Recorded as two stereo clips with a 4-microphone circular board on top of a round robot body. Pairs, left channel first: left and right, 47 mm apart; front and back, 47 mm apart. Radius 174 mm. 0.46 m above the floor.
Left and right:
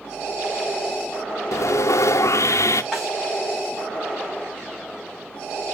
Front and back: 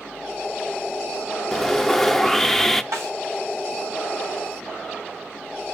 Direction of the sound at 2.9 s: 170° right.